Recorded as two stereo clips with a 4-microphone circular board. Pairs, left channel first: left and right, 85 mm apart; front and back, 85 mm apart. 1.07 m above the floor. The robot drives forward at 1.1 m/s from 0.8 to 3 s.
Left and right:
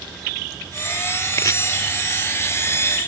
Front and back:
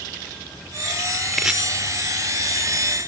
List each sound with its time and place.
1.3 s chopping: 90° left; by 1.6 s 110° left